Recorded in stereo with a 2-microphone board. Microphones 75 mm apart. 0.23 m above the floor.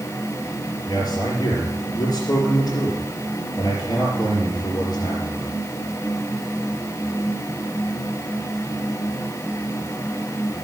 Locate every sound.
0.9 s a man speaking: 60° left (ahead or behind), 3.5 m